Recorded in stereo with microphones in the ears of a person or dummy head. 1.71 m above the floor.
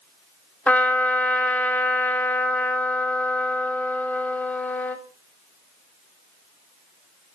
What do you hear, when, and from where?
0.7 s a trumpet: 10° left (ahead or behind), 2.5 m